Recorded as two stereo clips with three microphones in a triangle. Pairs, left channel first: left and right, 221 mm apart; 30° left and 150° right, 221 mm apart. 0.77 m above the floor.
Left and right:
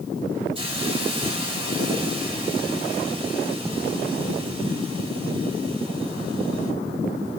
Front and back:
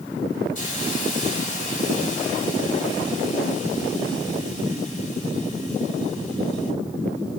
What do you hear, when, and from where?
0.6 s a hiss: 25° right, 4 m